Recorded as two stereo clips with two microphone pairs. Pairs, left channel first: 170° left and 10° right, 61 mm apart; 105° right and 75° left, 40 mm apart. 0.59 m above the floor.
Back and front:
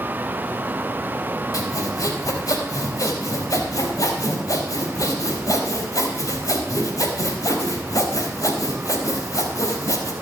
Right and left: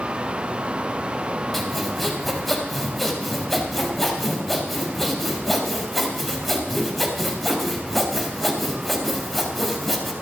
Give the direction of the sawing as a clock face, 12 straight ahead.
7 o'clock.